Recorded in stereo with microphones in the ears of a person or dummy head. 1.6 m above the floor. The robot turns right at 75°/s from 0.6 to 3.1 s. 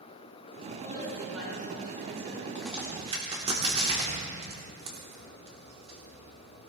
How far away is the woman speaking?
About 5 m.